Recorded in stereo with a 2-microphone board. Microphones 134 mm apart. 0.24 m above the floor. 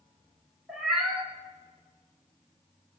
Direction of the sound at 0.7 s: Centre (ahead or behind).